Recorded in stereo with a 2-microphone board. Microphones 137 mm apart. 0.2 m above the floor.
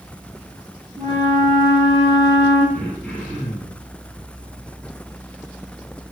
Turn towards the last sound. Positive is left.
turn(degrees=5)  # may be behind; listen again after turning